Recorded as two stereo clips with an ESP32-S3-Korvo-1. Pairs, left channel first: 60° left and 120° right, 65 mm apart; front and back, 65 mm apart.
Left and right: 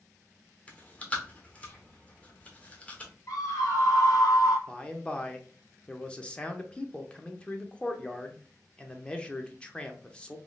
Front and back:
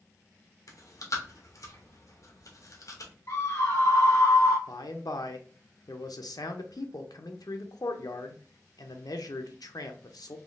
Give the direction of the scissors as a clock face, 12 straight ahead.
No scissors in this recording.